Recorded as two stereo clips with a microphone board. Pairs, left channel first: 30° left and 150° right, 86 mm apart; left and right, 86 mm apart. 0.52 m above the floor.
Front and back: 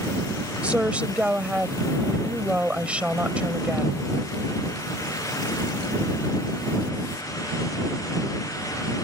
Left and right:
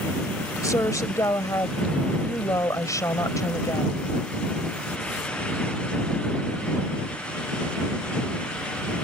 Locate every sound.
0.6 s a woman speaking: 135° left